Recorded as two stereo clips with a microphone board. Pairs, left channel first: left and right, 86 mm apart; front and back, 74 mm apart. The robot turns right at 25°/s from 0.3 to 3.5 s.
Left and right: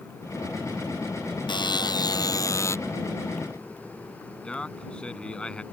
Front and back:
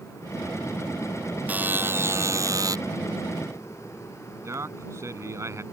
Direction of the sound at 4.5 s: 165° left.